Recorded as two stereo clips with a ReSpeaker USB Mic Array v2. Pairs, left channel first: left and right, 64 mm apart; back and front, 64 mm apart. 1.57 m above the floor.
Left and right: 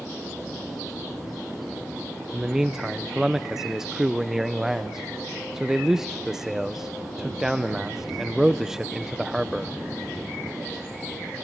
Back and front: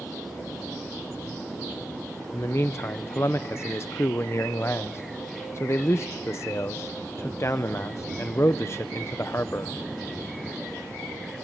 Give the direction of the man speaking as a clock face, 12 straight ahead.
6 o'clock.